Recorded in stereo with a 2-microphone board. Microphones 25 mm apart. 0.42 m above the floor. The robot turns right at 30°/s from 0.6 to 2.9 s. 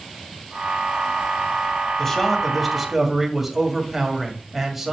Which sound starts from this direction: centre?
A man speaking, at 2.0 s.